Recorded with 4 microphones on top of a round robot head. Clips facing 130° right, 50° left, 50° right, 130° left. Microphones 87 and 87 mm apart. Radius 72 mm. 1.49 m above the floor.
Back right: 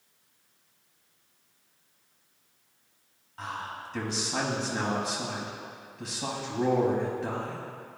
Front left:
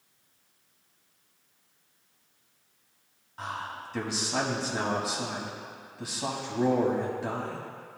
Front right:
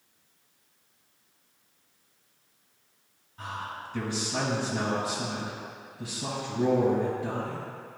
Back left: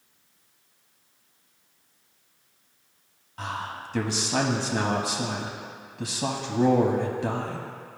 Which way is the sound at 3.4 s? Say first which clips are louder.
Even, back left 4 dB; 130° left.